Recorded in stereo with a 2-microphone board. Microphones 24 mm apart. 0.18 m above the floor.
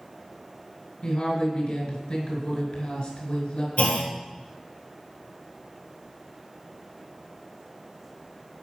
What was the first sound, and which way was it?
A woman speaking, 40° left (ahead or behind).